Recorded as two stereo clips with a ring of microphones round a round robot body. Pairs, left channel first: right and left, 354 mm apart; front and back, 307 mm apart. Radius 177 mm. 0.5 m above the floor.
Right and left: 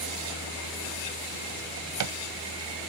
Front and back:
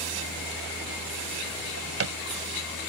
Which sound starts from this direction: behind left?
A drawer, at 1.6 s.